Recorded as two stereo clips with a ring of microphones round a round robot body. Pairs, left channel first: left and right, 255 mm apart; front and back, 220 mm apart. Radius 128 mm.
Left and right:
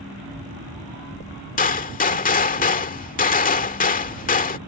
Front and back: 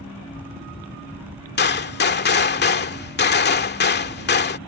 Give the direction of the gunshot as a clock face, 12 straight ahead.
11 o'clock.